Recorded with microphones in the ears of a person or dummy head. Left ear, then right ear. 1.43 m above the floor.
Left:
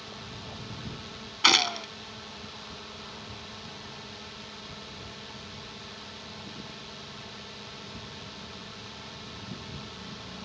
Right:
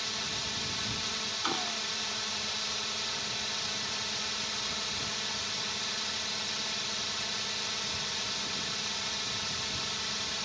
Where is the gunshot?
45° left (ahead or behind).